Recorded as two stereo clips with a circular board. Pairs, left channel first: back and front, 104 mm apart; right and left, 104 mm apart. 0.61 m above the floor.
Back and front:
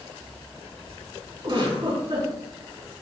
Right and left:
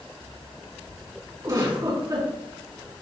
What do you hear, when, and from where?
1.4 s a giggle: 40° left, 4.5 m